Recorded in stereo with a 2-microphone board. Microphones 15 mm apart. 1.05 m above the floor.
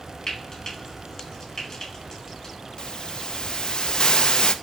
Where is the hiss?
45° left (ahead or behind), 0.6 m.